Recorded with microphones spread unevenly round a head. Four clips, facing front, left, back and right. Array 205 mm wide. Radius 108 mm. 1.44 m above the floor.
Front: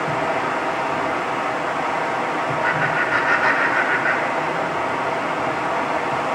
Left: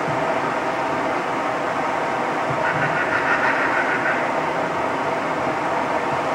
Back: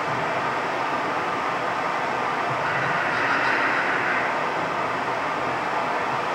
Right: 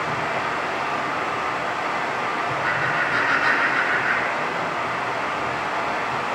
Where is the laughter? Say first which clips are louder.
Left 3 dB, front 4 dB; straight ahead, 2.5 m.